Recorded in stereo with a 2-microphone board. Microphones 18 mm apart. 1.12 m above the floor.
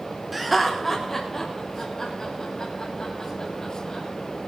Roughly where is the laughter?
Centre.